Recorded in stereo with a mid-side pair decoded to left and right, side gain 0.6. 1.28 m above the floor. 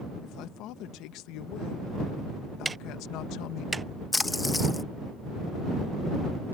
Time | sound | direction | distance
0.2 | a man speaking | 70° left | ?
2.6 | ticking | 20° right | ?
4.1 | a splash | 15° left | ?